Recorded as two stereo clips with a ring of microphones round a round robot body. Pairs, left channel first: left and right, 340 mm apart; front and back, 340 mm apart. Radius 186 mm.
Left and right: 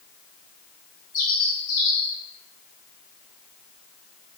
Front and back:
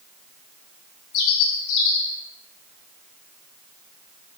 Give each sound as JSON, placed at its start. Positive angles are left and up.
{"t": 1.1, "sound": "a bird", "azimuth_deg": 20, "distance_m": 1.6}